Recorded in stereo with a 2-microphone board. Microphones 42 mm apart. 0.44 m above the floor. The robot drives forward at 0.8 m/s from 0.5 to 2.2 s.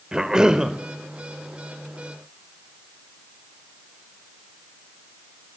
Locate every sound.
0.1 s a cough: 20° right (ahead or behind), 1.8 m; by 0.7 s 15° right (ahead or behind), 1.9 m